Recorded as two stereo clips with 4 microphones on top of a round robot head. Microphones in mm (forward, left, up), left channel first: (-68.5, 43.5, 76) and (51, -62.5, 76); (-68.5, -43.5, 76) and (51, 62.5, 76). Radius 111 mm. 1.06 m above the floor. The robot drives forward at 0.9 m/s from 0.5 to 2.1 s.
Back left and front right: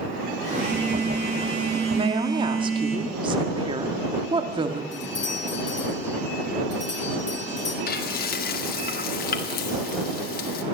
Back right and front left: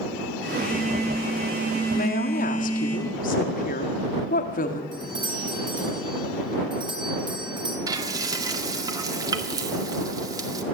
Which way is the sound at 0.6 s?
55° right.